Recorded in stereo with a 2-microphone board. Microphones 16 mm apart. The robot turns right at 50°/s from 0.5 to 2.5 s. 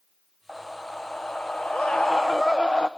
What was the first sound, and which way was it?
A scream, 25° left.